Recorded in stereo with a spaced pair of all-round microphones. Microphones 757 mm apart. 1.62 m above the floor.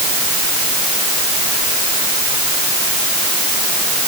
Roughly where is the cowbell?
No cowbell in this recording.